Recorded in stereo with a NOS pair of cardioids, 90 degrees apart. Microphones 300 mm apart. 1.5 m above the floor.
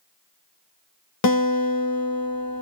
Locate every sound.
1.2 s a guitar: 60° left, 1.1 m